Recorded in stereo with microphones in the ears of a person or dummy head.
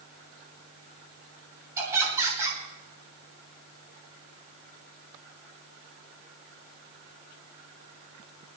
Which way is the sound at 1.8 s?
10° right (ahead or behind).